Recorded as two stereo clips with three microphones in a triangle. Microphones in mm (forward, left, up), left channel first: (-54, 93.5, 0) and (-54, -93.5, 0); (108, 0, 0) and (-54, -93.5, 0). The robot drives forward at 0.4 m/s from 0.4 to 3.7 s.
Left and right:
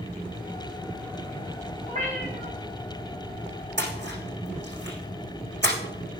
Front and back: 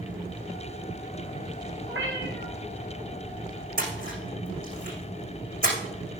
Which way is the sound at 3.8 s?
110° right.